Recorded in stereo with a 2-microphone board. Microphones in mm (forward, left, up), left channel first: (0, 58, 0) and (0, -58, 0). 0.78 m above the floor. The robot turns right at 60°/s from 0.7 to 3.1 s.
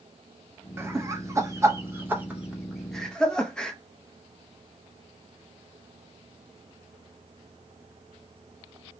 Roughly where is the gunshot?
I don't hear a gunshot.